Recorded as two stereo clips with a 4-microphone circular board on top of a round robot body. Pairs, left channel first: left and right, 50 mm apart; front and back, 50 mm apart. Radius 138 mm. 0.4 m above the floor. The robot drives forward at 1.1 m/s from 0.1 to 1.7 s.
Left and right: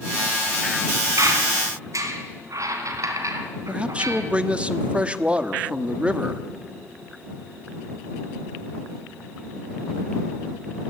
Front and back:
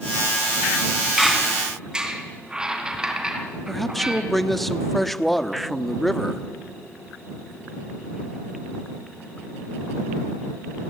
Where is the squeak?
90° right, 2.5 m; by 4.3 s 100° right, 2.5 m.